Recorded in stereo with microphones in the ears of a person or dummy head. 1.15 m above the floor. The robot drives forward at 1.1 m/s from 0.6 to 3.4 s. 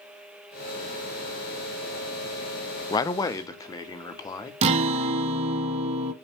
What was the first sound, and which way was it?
A man speaking, 20° left (ahead or behind).